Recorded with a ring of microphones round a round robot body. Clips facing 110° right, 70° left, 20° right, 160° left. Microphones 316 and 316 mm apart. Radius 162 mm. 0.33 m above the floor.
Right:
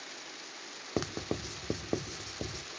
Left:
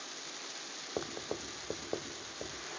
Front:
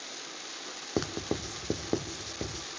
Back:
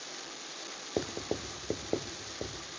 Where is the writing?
80° right, 1.1 m.